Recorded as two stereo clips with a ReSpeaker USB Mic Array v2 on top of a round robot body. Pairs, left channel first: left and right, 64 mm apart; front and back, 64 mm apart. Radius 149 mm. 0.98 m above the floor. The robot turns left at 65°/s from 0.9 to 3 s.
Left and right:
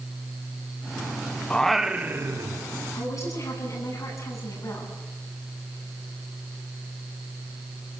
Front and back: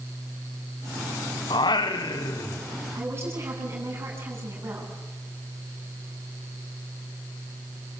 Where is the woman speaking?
130° left, 8.5 m.